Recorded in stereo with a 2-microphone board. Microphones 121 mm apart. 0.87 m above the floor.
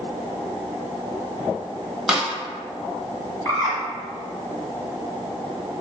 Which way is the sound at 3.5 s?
30° left (ahead or behind).